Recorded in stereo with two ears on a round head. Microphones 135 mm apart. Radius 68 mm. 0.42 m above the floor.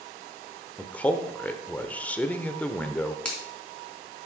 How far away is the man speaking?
About 1.0 m.